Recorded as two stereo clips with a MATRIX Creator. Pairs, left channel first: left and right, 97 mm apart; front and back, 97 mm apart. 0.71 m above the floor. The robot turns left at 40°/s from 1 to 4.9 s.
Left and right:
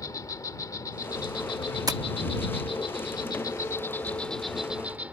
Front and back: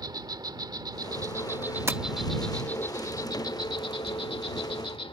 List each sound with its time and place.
0.0 s an insect: 140° left; by 5.1 s 15° right
1.9 s tapping: 125° right; by 2.0 s 130° right